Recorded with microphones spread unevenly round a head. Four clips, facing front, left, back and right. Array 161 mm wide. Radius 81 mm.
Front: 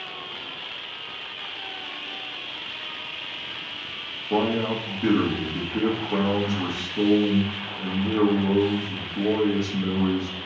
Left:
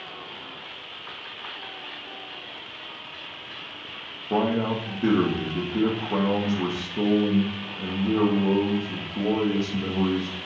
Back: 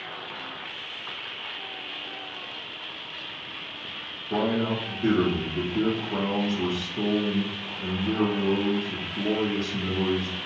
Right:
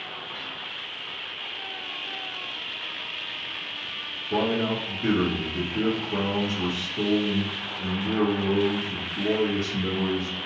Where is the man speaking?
65° left, 1.6 m.